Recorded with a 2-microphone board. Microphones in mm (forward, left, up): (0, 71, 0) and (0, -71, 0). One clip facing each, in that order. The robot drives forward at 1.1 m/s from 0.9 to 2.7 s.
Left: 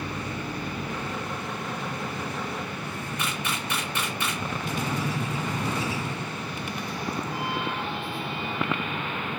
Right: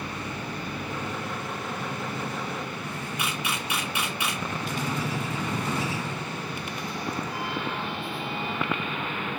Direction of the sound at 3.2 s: 10° right (ahead or behind).